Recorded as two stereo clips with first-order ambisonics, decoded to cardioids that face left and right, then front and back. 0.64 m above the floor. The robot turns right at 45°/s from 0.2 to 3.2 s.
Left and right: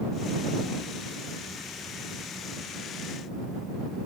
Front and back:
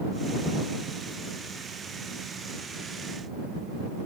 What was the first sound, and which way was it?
Only background noise.